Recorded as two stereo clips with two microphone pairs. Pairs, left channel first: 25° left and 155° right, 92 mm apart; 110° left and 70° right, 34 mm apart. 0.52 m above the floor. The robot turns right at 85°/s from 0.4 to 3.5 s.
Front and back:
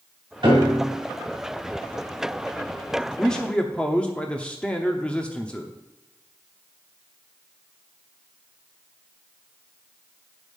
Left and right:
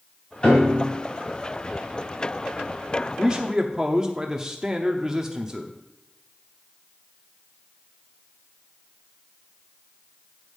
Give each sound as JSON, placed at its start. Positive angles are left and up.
{"t": 0.4, "sound": "a piano", "azimuth_deg": 175, "distance_m": 2.0}
{"t": 3.2, "sound": "a man speaking", "azimuth_deg": -55, "distance_m": 0.8}